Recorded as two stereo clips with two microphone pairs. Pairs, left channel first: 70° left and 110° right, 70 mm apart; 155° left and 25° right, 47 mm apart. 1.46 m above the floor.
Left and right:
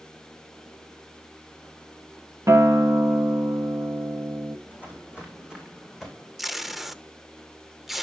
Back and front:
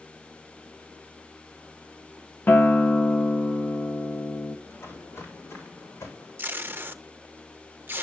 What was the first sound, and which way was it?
A guitar, 155° right.